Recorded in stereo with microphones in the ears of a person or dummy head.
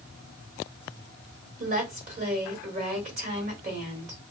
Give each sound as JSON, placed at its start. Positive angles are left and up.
{"t": 1.6, "sound": "a woman speaking", "side_deg": -50, "distance_m": 1.3}